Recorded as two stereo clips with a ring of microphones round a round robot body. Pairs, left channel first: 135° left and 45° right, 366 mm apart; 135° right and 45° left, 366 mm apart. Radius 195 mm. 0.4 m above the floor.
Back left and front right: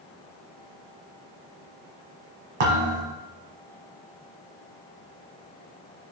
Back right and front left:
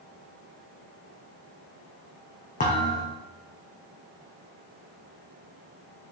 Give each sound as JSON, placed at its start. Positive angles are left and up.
{"t": 2.6, "sound": "a thud", "azimuth_deg": -65, "distance_m": 3.0}